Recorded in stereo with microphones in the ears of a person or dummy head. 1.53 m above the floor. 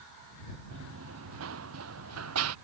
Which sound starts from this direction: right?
Running footsteps, at 0.7 s.